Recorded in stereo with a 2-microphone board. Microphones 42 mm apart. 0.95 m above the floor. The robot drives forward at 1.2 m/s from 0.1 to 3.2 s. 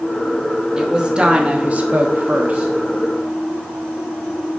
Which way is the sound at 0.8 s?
20° right (ahead or behind).